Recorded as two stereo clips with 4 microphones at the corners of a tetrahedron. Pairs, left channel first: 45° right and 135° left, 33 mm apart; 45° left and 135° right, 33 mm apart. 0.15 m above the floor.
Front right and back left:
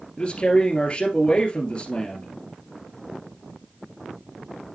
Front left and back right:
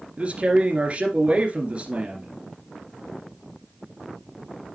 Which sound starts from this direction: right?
A man speaking, at 0.2 s.